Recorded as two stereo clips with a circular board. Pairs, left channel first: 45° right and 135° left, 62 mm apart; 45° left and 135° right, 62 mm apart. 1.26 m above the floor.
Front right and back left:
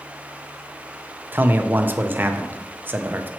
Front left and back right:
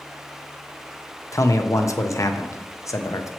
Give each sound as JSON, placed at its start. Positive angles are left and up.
{"t": 1.3, "sound": "a man speaking", "azimuth_deg": 80, "distance_m": 0.6}